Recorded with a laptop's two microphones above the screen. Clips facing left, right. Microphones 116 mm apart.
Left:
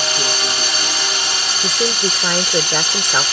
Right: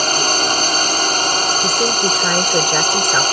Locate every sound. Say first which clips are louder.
0.0 s a drone: right 4 dB; 50° right (ahead or behind)
1.6 s a woman speaking: right 3 dB; centre (ahead or behind)